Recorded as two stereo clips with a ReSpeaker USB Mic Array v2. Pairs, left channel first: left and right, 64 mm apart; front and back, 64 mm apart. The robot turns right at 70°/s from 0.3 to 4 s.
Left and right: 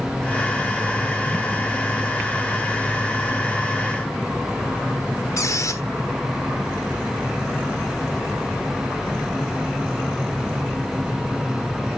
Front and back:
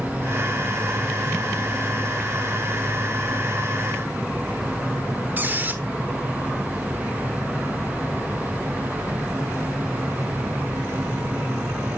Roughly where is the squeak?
Behind left.